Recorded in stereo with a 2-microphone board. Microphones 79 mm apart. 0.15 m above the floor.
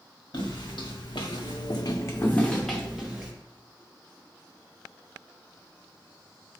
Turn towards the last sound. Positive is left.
turn(degrees=-10)  # may be behind; listen again after turning